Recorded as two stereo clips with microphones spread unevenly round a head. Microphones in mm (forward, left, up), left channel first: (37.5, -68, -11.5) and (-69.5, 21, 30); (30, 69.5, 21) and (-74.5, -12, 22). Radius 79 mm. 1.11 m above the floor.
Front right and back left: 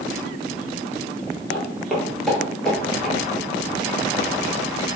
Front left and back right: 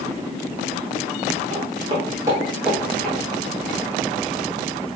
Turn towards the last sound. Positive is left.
turn(degrees=90)